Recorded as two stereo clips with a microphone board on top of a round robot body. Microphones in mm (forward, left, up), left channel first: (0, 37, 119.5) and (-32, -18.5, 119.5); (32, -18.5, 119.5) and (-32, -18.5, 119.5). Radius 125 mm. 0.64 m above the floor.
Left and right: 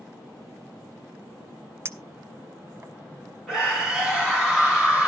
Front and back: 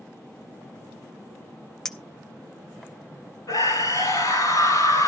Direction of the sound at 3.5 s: 35° right.